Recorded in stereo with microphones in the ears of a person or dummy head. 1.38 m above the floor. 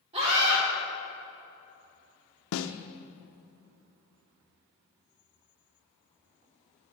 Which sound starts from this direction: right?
A scream, at 0.1 s.